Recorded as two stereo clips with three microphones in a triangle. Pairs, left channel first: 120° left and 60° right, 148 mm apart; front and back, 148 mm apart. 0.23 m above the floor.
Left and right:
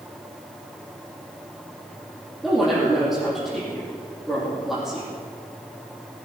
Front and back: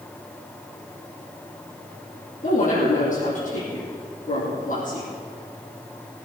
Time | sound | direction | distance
2.4 | a woman speaking | 30° left | 6.5 m